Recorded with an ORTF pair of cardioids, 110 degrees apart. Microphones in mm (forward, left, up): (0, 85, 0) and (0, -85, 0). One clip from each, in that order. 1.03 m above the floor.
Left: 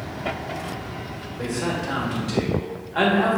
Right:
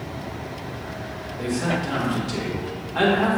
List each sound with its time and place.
1.4 s a man speaking: 5° left, 1.6 m